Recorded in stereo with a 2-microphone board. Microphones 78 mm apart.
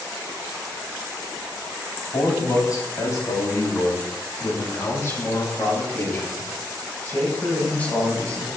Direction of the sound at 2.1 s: 55° left (ahead or behind).